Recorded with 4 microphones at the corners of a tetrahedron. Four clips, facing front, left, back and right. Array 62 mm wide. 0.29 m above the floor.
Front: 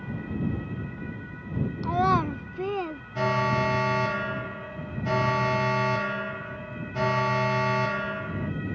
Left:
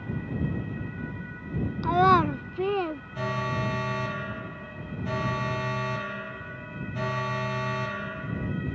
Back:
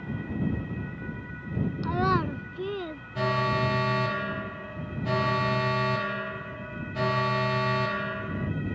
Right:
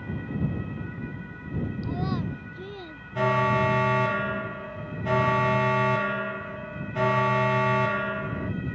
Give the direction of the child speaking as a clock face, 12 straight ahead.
9 o'clock.